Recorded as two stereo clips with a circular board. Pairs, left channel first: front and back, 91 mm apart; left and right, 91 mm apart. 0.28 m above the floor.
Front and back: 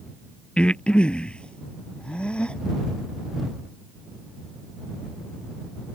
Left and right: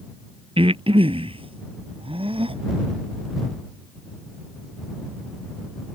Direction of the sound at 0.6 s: 80° right.